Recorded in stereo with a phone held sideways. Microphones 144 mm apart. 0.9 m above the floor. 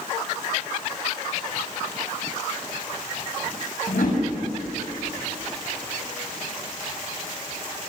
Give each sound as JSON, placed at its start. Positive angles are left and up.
{"t": 3.9, "sound": "a whoosh", "side_deg": 80, "distance_m": 7.5}